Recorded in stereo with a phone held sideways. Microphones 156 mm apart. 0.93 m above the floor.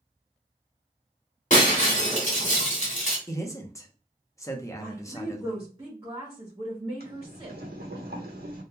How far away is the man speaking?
About 0.8 m.